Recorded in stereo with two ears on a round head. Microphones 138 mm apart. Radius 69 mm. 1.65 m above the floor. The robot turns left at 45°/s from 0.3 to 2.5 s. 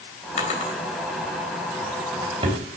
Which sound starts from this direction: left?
A drawer, at 0.4 s.